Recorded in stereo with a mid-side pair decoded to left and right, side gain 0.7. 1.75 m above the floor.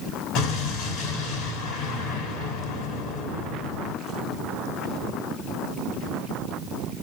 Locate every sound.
0.3 s an explosion: 65° left, 4.5 m